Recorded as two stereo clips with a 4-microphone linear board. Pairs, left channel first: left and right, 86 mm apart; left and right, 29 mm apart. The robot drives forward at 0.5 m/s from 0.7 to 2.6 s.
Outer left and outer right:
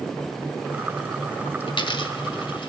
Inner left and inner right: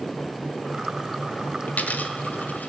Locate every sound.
1.7 s a dropped coin: 70° left (ahead or behind), 1.7 m; by 2.7 s 85° left, 1.6 m